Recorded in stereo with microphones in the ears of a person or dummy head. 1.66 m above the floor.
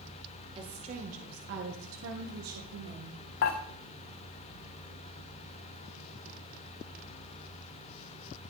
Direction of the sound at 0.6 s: 30° right (ahead or behind).